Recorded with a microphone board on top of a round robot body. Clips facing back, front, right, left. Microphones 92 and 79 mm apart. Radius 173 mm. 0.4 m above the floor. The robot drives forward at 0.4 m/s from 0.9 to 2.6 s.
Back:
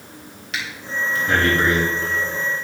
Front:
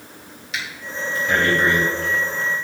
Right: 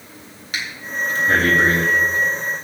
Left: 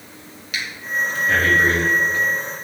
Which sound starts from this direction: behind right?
Breathing, at 0.5 s.